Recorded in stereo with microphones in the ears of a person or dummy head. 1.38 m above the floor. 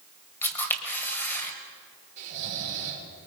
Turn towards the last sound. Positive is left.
turn(degrees=-45)  # may be behind; listen again after turning